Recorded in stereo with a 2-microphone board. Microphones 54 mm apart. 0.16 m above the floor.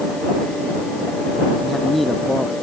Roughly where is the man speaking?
Centre.